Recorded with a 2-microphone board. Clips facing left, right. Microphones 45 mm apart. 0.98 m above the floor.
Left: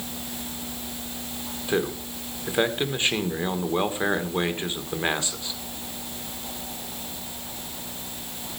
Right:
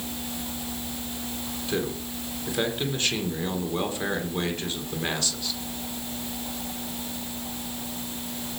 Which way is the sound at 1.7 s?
25° left (ahead or behind).